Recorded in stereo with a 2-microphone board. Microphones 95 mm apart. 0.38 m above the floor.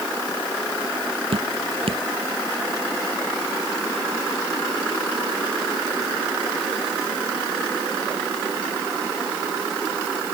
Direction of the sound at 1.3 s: 75° right (ahead or behind).